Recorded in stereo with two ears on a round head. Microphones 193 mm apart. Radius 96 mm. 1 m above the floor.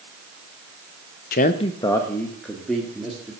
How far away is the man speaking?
About 0.7 m.